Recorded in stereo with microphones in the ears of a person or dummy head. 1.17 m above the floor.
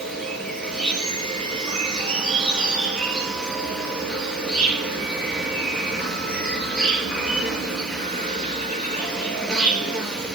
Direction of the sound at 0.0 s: 5° left (ahead or behind).